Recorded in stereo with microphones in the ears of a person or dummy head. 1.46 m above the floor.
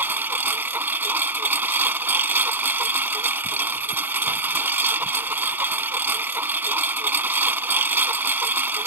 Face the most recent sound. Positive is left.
turn(degrees=-10)  # may be behind; listen again after turning